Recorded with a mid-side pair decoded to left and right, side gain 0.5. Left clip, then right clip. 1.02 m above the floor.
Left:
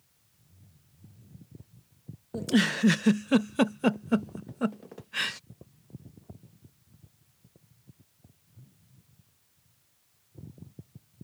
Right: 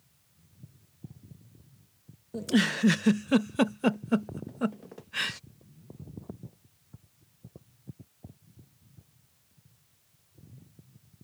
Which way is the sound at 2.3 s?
10° left.